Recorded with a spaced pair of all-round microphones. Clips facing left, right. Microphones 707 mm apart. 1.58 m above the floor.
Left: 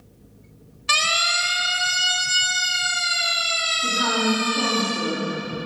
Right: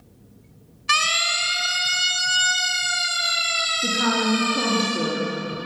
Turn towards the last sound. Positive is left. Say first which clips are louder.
# right 1 dB
turn(degrees=-75)  # may be behind; listen again after turning